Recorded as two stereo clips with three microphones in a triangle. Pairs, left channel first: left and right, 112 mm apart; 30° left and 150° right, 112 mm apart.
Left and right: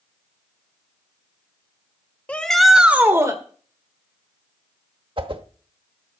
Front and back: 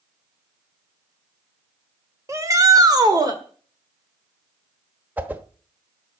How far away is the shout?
About 1.7 m.